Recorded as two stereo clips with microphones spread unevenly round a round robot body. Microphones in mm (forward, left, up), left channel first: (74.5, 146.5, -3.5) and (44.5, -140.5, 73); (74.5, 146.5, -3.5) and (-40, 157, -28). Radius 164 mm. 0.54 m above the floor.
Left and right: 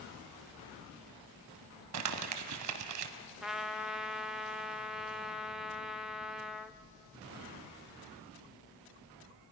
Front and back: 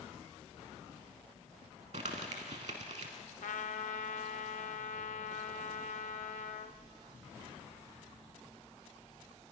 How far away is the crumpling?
About 0.8 m.